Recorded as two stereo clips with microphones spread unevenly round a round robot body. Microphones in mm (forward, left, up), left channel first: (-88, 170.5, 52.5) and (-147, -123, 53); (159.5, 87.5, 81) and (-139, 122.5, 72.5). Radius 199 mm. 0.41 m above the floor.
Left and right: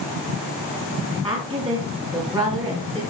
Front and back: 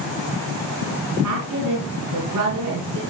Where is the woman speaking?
170° right, 3 m.